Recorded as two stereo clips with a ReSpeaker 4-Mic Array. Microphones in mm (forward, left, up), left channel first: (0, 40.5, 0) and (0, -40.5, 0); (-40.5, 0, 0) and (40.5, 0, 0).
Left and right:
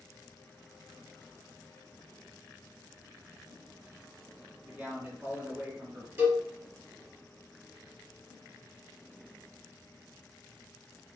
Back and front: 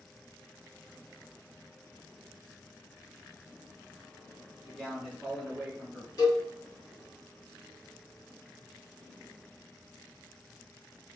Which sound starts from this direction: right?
A man speaking, at 4.7 s.